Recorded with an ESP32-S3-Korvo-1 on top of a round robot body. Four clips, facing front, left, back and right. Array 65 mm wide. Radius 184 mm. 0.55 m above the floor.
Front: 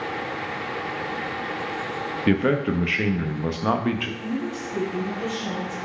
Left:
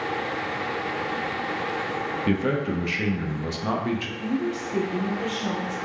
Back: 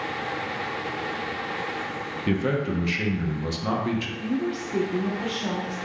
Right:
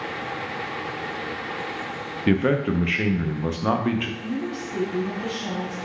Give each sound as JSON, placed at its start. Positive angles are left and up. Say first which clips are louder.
{"t": 2.3, "sound": "a man speaking", "louder": "right 5 dB, front 4 dB", "azimuth_deg": -35, "distance_m": 0.6}
{"t": 4.2, "sound": "a woman speaking", "louder": "left 2 dB, back 1 dB", "azimuth_deg": 135, "distance_m": 1.4}